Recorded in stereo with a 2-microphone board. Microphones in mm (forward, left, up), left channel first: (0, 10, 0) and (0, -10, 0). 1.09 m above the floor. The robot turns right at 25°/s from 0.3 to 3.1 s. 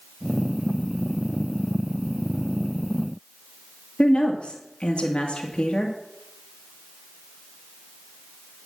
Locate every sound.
4.0 s a woman speaking: 60° left (ahead or behind), 2 m